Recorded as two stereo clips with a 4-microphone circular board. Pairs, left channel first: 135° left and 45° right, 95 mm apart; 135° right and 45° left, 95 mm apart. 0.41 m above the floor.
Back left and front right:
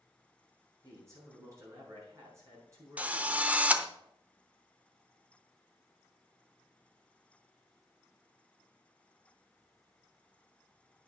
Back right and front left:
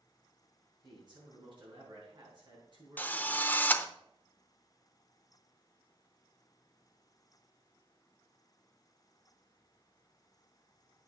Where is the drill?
95° right, 0.6 m.